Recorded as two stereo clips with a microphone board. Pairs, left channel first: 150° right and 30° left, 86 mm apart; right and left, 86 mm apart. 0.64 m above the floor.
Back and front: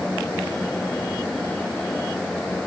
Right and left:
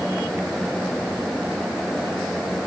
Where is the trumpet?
I don't hear a trumpet.